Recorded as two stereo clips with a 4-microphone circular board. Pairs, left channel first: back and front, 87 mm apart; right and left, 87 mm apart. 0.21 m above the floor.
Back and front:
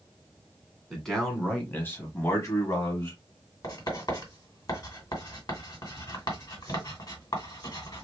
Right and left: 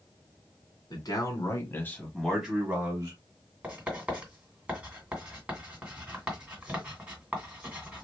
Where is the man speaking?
95° right, 1.8 m; by 3.2 s 135° left, 1.8 m.